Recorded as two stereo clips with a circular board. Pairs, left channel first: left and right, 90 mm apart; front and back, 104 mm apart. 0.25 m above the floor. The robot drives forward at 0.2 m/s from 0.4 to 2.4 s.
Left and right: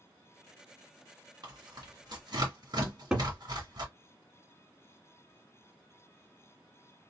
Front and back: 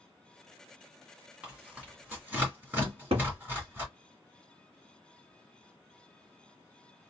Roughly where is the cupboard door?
Behind.